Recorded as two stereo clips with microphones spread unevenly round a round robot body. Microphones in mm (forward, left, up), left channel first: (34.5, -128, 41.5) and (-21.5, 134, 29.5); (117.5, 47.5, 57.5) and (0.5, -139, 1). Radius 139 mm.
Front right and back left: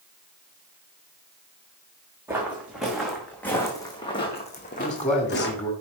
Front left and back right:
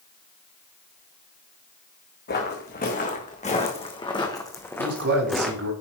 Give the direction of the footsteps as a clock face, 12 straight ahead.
11 o'clock.